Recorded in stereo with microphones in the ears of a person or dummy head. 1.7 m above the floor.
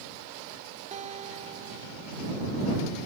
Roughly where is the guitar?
Right.